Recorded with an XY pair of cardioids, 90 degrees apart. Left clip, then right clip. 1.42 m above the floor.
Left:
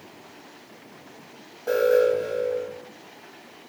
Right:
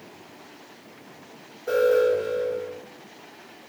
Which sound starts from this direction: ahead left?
An alarm, at 1.7 s.